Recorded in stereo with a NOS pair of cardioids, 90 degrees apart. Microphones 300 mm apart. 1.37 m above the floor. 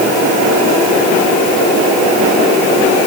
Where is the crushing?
No crushing in this recording.